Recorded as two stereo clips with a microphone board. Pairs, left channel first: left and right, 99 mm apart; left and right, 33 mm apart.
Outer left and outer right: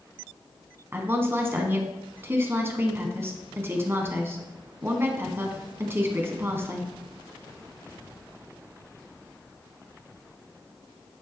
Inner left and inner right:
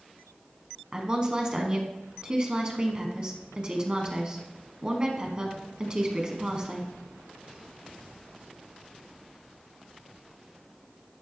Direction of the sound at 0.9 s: 25° right (ahead or behind).